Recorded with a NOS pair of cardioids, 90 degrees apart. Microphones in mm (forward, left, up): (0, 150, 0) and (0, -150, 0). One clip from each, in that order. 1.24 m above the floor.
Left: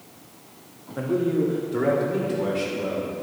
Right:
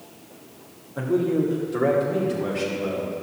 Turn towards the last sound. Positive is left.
turn(degrees=10)